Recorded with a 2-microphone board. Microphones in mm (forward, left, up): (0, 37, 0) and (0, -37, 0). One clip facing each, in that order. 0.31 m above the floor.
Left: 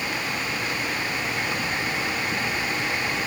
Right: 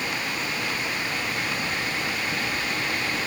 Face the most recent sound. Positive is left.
No sound to turn to.